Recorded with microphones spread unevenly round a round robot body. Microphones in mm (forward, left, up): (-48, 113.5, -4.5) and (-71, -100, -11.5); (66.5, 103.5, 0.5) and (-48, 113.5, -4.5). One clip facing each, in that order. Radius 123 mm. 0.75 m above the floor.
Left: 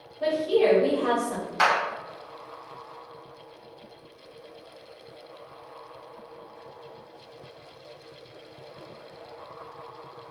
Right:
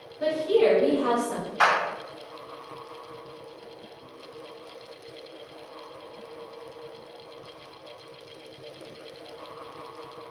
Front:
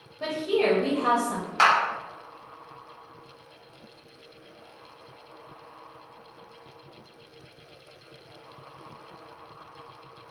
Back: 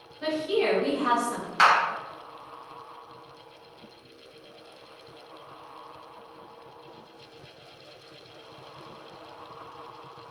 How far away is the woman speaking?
About 0.8 m.